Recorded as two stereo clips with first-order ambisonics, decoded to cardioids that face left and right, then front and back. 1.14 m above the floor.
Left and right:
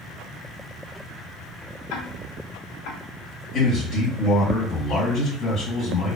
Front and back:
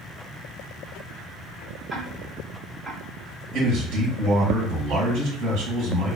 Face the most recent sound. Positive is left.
turn(degrees=145)